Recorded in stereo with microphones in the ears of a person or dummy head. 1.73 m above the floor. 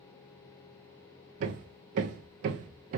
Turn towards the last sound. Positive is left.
turn(degrees=-45)  # may be behind; listen again after turning